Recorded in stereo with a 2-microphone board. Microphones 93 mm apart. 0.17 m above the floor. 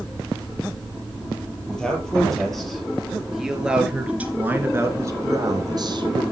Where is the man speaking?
5° left (ahead or behind), 5 m; by 6.2 s 55° right (ahead or behind), 2.5 m.